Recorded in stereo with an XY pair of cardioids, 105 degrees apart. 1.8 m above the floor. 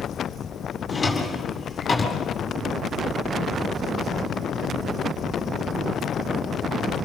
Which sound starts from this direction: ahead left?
A drawer, at 0.9 s.